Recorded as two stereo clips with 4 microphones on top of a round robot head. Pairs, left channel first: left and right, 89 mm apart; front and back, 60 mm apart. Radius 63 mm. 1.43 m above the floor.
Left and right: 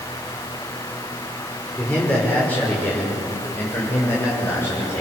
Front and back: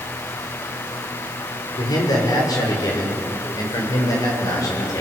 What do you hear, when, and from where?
1.8 s a man speaking: 10° left, 6 m; by 5.0 s 20° left, 8 m